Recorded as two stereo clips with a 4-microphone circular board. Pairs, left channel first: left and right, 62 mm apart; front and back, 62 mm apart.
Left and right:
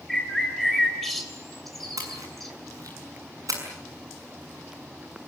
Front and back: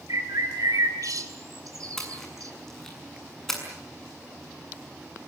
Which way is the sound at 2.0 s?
85° right.